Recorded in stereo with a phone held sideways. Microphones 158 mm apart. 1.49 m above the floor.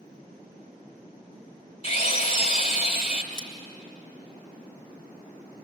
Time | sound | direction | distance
1.8 | a drill | 50° left (ahead or behind) | 3 m
3.3 | scissors | 60° left (ahead or behind) | 3 m